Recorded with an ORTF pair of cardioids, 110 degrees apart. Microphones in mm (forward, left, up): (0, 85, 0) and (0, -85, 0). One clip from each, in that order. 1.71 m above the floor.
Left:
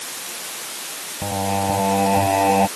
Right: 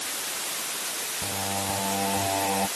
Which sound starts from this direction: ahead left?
Singing, at 1.2 s.